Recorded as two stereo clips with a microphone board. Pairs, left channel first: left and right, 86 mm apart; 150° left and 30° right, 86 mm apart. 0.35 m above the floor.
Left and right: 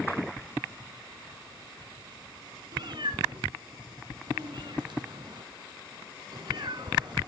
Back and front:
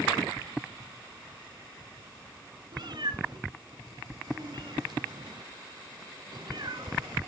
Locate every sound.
2.7 s a cat meowing: 60° right, 1.5 m